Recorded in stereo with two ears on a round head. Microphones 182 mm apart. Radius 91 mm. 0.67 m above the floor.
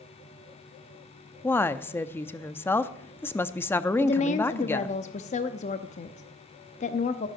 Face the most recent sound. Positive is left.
turn(degrees=35)  # may be behind; listen again after turning